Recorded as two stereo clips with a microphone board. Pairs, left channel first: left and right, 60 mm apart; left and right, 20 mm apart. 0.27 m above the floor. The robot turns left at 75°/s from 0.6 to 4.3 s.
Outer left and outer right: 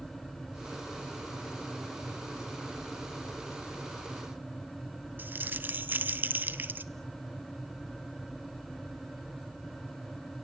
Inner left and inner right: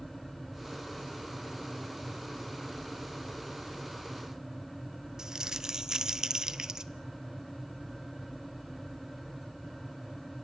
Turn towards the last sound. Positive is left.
turn(degrees=-30)  # may be behind; listen again after turning